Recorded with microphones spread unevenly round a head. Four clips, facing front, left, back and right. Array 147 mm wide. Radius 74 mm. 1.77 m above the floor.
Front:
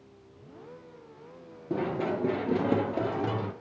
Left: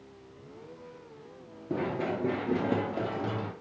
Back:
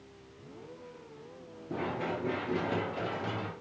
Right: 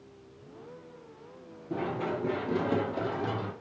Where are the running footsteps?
45° left, 2 m; by 3.5 s straight ahead, 2.5 m.